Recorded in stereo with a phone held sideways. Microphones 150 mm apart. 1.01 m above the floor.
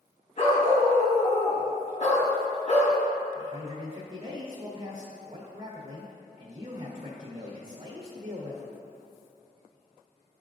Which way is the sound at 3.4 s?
35° right (ahead or behind).